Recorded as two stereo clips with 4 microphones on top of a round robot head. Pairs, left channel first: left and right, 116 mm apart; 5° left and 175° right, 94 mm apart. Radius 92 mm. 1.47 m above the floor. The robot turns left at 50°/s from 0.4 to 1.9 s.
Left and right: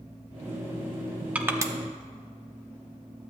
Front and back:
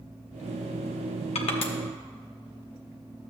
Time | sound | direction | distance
1.4 | crushing | 10° right | 0.8 m